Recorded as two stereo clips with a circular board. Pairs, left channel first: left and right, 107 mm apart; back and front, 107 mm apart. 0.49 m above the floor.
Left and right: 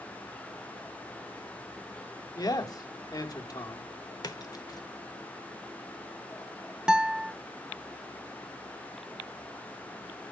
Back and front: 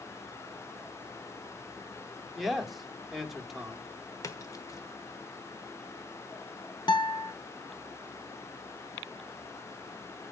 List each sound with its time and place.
2.4 s a man speaking: 90° left, 1.2 m
4.2 s a splash: 130° left, 1.1 m
6.9 s a guitar: 170° right, 0.7 m